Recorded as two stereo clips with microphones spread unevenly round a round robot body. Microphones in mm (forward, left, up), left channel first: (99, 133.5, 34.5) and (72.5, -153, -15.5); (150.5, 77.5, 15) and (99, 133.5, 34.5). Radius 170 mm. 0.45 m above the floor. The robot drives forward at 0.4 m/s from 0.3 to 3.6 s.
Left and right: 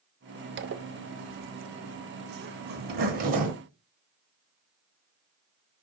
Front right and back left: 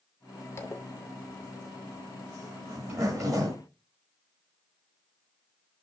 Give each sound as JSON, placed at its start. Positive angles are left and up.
{"t": 0.6, "sound": "a zipper", "azimuth_deg": -70, "distance_m": 0.6}